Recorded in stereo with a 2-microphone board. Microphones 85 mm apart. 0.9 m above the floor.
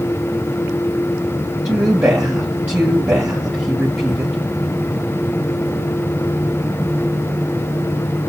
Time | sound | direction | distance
1.6 | a woman speaking | 25° right (ahead or behind) | 1.4 m